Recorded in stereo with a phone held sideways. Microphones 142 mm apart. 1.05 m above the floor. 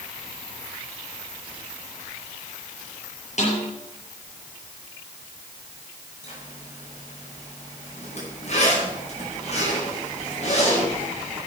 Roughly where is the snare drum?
Left.